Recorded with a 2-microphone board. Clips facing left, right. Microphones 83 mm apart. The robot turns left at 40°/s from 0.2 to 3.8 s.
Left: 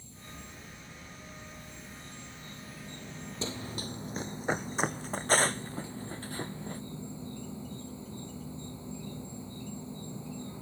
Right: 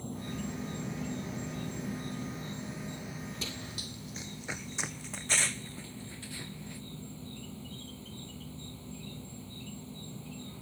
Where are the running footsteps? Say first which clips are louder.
Left 4 dB; 30° left (ahead or behind); by 6.8 s 45° left (ahead or behind).